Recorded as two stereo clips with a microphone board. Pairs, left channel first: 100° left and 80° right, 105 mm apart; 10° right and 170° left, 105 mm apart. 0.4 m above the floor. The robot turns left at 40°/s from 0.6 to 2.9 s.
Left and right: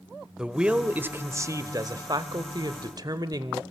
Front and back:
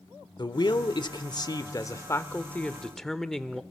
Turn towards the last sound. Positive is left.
turn(degrees=-95)